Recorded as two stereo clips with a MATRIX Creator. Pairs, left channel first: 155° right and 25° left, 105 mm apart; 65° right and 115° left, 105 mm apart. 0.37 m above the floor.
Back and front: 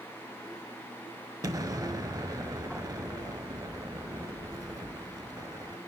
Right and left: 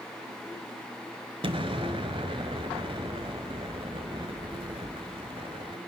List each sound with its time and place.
1.4 s an explosion: 75° left, 1.0 m